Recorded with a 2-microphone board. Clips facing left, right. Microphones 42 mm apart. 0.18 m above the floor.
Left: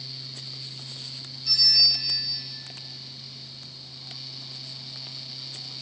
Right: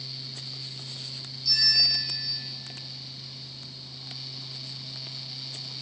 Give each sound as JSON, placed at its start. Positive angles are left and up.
{"t": 1.4, "sound": "a bell", "side_deg": 35, "distance_m": 5.0}